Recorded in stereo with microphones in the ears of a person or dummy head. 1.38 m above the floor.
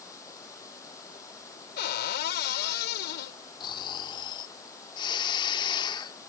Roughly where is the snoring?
Left.